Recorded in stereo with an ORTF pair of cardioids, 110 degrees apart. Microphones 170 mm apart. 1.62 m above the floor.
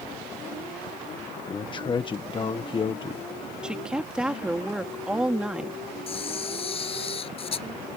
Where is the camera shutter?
35° left.